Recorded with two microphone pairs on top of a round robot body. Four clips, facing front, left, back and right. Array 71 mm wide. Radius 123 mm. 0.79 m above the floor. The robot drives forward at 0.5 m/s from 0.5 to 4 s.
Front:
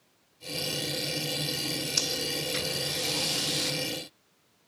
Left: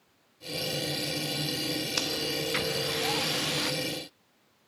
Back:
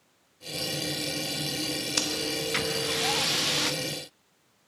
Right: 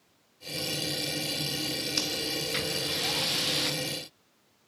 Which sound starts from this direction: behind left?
Breathing, at 2.0 s.